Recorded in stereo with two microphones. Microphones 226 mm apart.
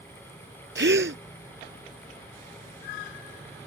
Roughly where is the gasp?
Right.